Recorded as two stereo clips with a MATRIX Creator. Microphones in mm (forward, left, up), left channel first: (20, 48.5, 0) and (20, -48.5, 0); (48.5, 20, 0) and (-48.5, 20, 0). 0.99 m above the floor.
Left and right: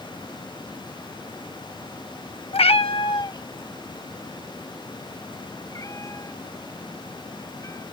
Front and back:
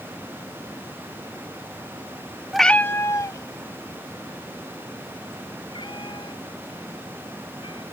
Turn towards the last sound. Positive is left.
turn(degrees=30)